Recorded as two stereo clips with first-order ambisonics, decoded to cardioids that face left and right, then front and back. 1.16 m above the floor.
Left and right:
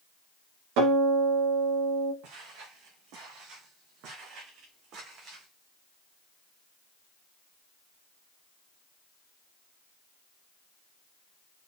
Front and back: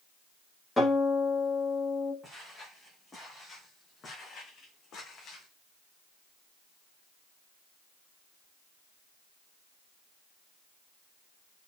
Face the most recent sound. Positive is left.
turn(degrees=-45)